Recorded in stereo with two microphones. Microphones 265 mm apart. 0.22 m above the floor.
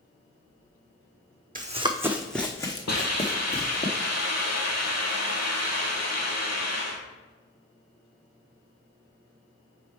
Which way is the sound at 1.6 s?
35° right (ahead or behind).